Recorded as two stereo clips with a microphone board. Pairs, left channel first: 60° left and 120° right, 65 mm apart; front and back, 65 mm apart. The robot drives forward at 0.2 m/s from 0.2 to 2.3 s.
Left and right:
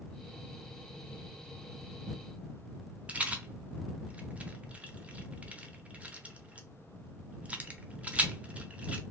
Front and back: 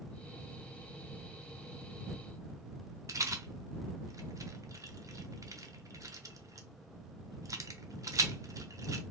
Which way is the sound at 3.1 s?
175° left.